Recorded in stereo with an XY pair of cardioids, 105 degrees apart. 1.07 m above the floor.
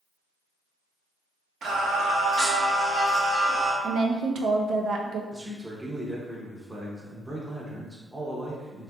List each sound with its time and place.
1.6 s singing: 65° right, 1.1 m
3.8 s a woman speaking: 65° right, 0.6 m
5.3 s a man speaking: 10° right, 0.8 m